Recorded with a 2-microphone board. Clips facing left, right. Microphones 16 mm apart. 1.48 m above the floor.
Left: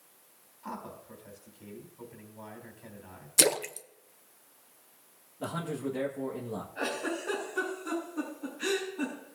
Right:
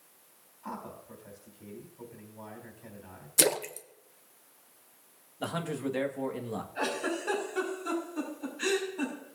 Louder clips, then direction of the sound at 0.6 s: Even; 15° left (ahead or behind).